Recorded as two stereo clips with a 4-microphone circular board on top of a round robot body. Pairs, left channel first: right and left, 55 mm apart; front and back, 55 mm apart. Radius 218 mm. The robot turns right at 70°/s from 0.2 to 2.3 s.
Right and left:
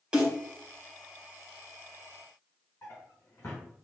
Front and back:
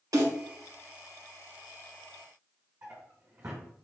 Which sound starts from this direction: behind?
A snare drum, at 0.1 s.